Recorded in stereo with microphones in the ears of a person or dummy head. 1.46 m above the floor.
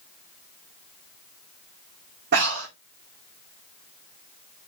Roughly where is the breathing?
Right.